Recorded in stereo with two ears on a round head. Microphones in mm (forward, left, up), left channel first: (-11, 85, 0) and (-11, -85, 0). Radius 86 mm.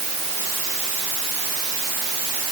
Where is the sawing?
No sawing in this recording.